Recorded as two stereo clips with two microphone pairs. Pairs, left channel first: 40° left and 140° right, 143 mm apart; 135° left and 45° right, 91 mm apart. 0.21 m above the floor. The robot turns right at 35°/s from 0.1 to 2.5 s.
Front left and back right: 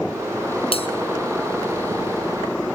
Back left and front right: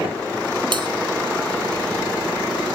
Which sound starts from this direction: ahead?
A bell, at 0.7 s.